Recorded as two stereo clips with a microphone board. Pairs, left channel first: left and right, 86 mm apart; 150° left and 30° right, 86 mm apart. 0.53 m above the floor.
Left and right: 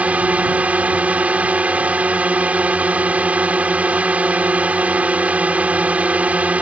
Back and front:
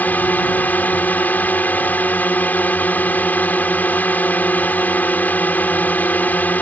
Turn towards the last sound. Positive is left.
turn(degrees=-155)